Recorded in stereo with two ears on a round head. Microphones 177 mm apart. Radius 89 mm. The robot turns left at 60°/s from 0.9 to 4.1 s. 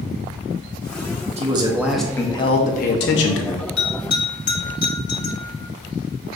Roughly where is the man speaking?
Behind right.